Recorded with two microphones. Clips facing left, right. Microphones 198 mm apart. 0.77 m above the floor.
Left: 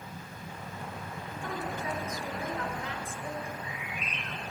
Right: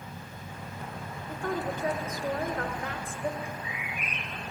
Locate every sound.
1.3 s a woman speaking: 55° right (ahead or behind), 3.5 m
3.4 s a bird: 10° right (ahead or behind), 4.5 m